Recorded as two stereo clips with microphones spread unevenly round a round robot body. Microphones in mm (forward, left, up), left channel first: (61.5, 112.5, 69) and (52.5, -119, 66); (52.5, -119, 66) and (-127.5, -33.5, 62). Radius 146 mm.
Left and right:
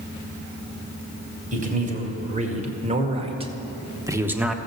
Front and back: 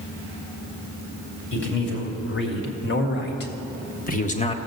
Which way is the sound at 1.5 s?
40° right.